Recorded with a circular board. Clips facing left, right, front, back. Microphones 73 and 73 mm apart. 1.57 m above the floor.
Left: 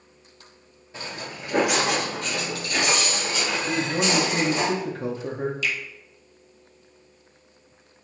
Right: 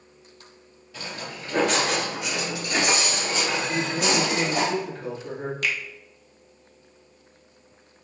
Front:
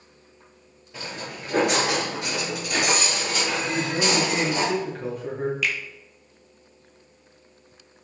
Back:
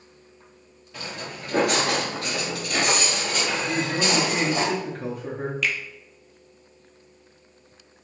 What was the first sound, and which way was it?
Footsteps, 60° left.